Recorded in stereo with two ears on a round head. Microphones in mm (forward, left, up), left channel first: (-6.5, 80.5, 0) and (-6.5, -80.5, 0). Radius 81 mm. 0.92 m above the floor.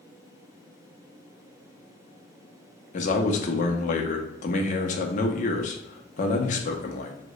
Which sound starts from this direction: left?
A man speaking, at 2.9 s.